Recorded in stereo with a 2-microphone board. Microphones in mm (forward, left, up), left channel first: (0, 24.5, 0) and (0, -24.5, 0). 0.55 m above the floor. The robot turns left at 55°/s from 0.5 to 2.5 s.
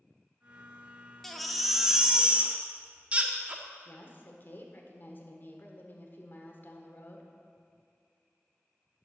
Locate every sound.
1.2 s a baby crying: 15° left, 0.8 m; by 3.6 s 55° right, 0.8 m
3.9 s a woman speaking: 40° left (ahead or behind), 1.4 m